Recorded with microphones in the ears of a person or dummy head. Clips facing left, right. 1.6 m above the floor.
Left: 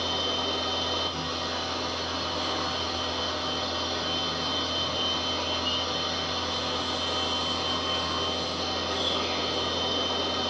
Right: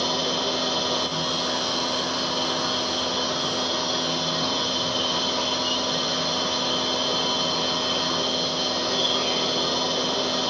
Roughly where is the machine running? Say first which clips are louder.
Right 5 dB; right.